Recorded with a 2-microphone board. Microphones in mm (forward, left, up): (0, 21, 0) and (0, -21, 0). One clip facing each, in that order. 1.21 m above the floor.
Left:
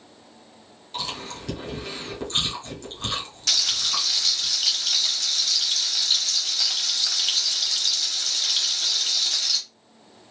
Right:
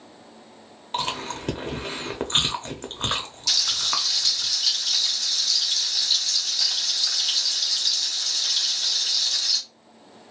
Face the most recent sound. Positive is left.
turn(degrees=50)  # may be behind; listen again after turning